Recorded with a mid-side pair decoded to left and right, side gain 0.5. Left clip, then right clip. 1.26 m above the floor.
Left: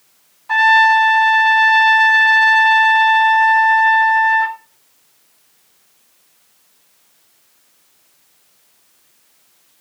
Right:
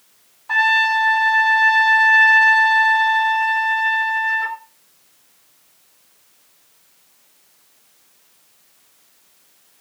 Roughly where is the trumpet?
Ahead.